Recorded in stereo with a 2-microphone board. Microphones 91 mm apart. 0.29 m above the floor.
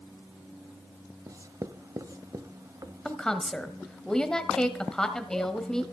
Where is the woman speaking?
10° left (ahead or behind), 1.2 m.